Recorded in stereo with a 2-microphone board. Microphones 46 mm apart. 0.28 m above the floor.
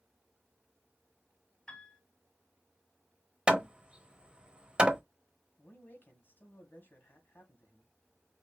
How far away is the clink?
No clink in this recording.